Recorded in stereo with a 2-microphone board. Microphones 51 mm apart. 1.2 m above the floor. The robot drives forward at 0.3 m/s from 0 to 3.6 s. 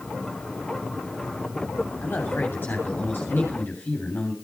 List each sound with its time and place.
2.0 s a man speaking: 45° left (ahead or behind), 3 m; by 4.3 s 40° left (ahead or behind), 3.5 m